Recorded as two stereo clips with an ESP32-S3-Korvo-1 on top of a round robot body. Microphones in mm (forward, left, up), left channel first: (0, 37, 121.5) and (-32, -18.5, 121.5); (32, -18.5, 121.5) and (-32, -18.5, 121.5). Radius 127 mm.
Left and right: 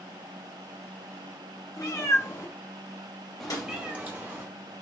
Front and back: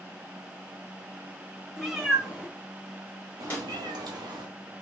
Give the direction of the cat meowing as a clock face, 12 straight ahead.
9 o'clock.